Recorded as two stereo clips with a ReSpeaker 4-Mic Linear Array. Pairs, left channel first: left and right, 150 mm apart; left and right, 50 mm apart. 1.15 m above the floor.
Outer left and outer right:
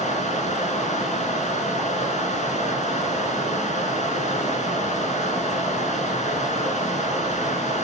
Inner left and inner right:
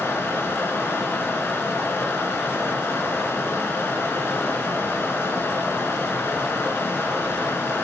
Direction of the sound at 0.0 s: 55° left (ahead or behind).